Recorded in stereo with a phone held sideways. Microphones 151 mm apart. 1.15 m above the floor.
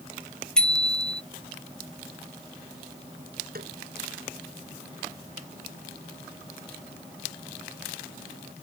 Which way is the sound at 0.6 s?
5° left (ahead or behind).